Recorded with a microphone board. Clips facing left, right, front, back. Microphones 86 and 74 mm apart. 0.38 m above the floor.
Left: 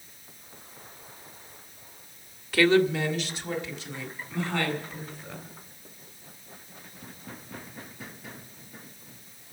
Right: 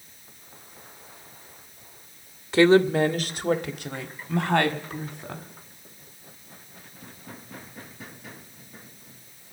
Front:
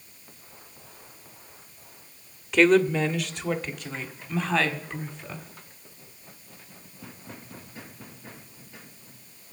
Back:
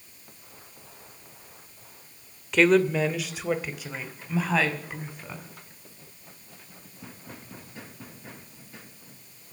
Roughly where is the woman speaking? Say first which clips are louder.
Right 4 dB, front 1 dB; right.